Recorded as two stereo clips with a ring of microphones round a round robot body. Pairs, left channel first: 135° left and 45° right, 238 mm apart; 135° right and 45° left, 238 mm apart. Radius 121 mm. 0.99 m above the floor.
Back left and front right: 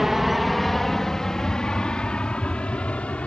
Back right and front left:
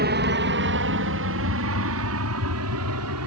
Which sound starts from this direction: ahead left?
An aircraft, at 0.0 s.